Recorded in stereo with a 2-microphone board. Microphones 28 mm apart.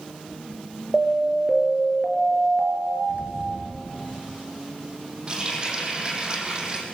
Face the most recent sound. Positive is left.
turn(degrees=-30)  # may be behind; listen again after turning